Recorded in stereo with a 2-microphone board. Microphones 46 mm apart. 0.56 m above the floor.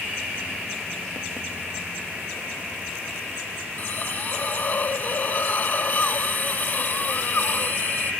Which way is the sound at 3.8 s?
45° left (ahead or behind).